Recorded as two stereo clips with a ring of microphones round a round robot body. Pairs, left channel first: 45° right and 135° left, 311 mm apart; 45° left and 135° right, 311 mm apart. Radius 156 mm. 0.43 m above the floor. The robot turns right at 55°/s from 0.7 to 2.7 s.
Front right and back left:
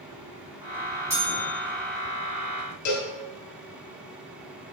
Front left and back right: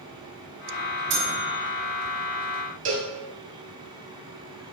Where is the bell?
145° right, 1.6 m; by 1.5 s 120° right, 1.6 m.